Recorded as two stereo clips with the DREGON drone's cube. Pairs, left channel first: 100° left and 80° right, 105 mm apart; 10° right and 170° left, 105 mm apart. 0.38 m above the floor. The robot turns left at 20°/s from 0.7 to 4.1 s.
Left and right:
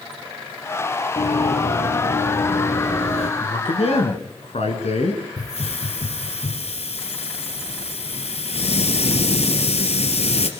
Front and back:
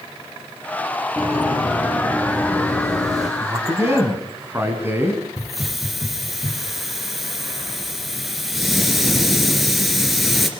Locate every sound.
1.2 s running footsteps: 95° left, 6 m; by 3.3 s 80° left, 5.5 m
3.4 s a man speaking: 115° left, 5 m; by 5.2 s 100° left, 5 m
5.4 s a hiss: 80° left, 3 m